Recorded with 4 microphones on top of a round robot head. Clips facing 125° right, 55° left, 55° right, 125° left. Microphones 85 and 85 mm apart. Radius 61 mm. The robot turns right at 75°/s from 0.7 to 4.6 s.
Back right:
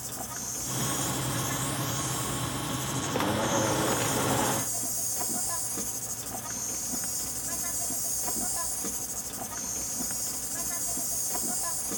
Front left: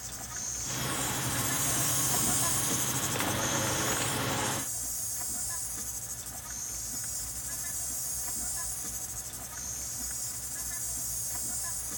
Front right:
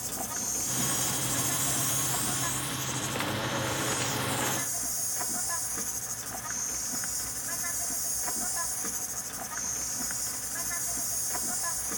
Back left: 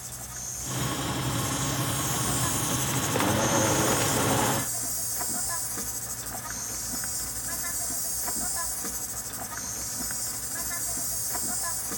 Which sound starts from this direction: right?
An insect, at 0.0 s.